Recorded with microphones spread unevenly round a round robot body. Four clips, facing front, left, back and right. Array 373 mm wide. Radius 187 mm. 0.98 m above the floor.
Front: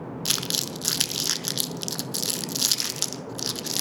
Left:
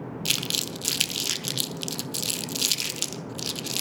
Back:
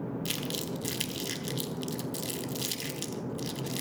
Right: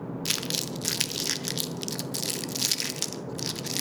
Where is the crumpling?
Straight ahead, 0.8 m.